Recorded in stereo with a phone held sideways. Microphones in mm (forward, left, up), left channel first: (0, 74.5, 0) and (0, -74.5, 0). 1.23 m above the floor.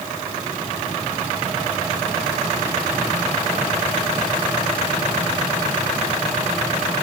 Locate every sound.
Only background noise.